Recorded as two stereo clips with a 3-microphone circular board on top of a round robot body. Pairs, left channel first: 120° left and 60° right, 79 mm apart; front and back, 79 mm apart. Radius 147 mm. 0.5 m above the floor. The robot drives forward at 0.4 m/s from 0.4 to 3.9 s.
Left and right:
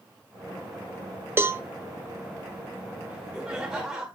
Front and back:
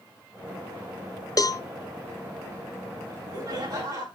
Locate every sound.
1.4 s a cowbell: 10° right, 1.1 m; by 1.6 s 15° right, 1.0 m
3.1 s laughter: 140° right, 6.5 m